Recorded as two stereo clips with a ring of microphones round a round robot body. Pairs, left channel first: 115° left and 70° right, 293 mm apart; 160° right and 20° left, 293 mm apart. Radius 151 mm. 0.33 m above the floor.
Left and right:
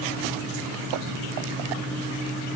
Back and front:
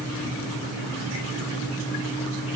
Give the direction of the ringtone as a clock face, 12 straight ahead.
I don't hear a ringtone.